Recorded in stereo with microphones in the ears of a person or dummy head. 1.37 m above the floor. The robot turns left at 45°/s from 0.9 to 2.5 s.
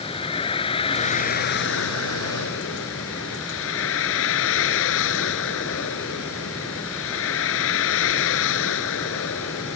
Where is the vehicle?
150° left; by 9.8 s 75° left.